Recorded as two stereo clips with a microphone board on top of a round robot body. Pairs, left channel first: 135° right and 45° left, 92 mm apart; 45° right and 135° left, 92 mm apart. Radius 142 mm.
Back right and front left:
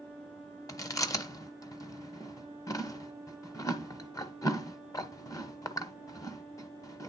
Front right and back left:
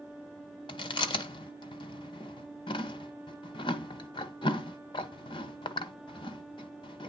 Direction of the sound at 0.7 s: 80° right.